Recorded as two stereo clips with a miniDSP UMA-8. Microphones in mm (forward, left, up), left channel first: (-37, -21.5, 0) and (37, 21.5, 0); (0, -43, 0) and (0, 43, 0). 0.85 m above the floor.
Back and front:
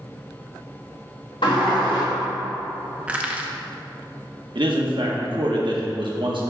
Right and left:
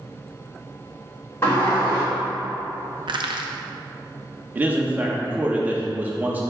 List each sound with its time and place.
1.4 s a sliding door: 145° right, 2 m
3.1 s crushing: 105° left, 0.7 m
4.5 s a man speaking: 20° left, 1.2 m